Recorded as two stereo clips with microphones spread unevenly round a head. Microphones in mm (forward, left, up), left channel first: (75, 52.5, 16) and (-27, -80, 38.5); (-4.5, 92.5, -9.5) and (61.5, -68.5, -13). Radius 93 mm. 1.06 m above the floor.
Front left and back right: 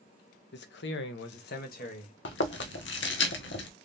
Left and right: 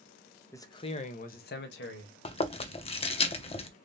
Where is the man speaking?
40° left, 0.8 m; by 2.1 s 100° left, 1.1 m.